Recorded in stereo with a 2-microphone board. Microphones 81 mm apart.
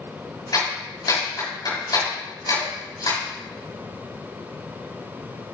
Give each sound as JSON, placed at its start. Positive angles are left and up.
{"t": 0.5, "sound": "a clap", "side_deg": 50, "distance_m": 6.5}